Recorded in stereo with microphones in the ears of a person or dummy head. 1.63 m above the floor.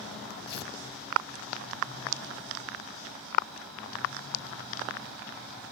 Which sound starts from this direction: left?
Tearing paper, at 0.5 s.